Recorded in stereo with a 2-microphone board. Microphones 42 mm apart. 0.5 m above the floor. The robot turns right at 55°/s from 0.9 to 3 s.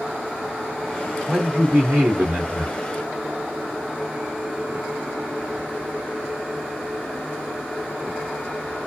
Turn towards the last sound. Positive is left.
turn(degrees=-60)